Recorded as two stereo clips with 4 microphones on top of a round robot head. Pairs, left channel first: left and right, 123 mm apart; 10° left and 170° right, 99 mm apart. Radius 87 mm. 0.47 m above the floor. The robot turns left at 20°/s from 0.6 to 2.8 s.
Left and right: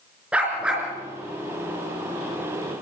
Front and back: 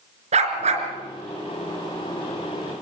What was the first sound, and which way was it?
A dog barking, 170° right.